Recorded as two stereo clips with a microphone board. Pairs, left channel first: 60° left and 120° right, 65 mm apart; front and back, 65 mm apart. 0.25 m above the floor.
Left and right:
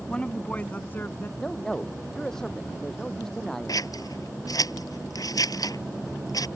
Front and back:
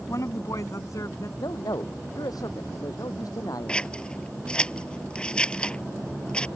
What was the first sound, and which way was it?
A woman speaking, 15° right.